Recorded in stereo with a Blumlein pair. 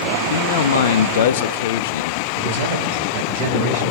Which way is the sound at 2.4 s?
55° right.